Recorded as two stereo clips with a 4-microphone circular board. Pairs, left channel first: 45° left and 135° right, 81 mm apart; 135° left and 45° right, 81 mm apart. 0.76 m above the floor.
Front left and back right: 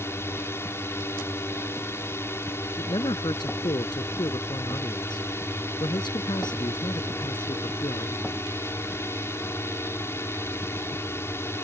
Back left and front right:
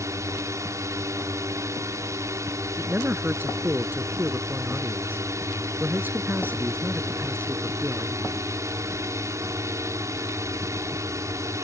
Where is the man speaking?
20° left.